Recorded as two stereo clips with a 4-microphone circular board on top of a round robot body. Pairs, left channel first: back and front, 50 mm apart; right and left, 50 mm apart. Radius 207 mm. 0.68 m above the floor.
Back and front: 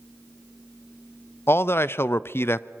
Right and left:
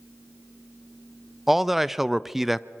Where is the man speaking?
175° left, 0.7 m.